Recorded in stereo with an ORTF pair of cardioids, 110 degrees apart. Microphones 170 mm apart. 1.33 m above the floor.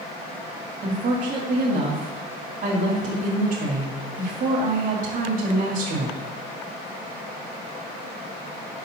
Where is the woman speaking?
50° right, 2 m.